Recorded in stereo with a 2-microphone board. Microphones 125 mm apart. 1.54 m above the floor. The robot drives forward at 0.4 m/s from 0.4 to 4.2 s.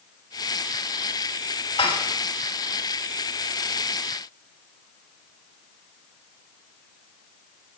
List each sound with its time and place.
1.8 s dishes clattering: 50° left (ahead or behind), 5 m